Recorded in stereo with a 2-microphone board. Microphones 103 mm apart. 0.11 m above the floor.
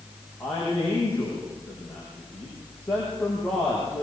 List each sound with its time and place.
0.4 s a man speaking: 10° left (ahead or behind), 7 m